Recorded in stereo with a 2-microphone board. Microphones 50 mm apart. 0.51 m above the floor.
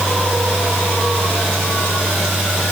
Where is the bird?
No bird in this recording.